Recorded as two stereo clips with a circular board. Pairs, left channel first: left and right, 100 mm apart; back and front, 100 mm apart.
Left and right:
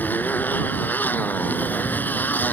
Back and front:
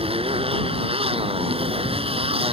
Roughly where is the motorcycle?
Ahead.